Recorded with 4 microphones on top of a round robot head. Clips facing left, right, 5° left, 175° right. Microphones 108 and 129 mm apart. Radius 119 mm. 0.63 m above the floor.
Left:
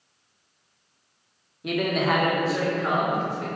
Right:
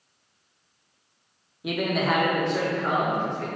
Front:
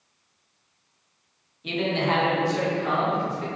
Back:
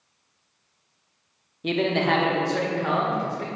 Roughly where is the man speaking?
Behind.